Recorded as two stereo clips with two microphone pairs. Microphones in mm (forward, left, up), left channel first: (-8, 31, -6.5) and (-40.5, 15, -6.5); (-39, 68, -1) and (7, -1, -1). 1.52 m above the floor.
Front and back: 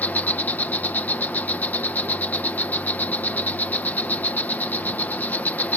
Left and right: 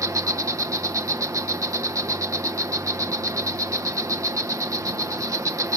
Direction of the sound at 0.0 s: 5° right.